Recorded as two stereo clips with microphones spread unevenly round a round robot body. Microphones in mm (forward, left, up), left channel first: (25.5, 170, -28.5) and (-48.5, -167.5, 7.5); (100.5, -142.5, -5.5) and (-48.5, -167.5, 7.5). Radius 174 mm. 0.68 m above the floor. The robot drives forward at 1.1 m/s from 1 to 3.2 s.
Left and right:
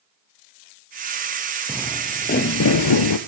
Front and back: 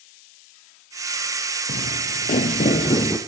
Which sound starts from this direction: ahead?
Footsteps, at 1.7 s.